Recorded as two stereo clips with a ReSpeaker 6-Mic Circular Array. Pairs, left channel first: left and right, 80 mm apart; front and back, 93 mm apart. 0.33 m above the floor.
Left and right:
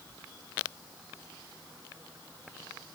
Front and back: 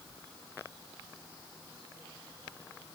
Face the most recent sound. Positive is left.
No sound to turn to.